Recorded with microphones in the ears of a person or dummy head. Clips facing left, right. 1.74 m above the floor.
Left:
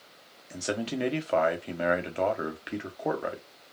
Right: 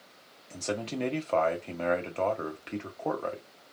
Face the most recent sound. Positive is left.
turn(degrees=10)  # may be behind; listen again after turning